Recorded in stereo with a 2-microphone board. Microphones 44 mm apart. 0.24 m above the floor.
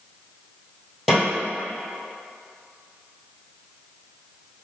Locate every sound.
1.1 s a snare drum: centre (ahead or behind), 1.8 m